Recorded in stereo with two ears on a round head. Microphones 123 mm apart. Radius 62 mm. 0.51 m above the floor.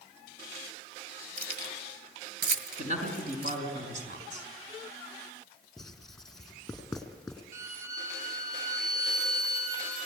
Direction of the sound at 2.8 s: 55° right (ahead or behind).